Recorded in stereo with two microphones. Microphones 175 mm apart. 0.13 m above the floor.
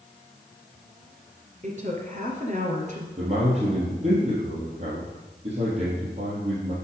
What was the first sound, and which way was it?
A woman speaking, 45° right (ahead or behind).